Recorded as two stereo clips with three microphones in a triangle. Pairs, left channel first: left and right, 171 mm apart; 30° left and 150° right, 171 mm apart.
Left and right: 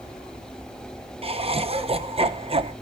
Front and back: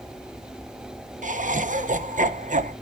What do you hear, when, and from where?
1.2 s laughter: 135° right, 1.1 m